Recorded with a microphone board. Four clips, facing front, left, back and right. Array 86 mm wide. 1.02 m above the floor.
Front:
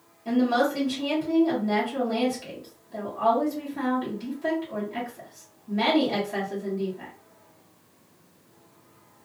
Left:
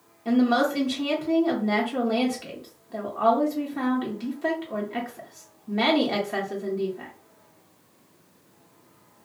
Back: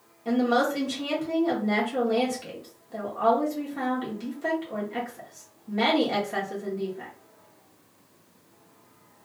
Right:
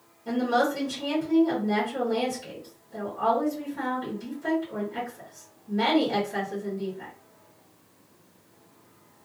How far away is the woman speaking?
About 1.2 m.